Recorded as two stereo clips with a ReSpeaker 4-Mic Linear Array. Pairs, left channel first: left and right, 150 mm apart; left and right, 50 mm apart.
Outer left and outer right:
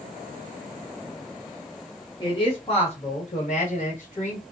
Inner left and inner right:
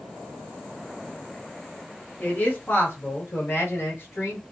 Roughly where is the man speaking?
Left.